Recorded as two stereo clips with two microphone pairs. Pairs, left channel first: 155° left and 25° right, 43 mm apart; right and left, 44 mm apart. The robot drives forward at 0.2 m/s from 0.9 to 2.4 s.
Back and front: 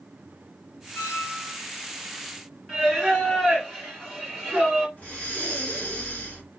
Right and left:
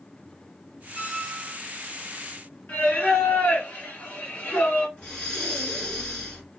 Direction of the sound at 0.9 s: 175° right.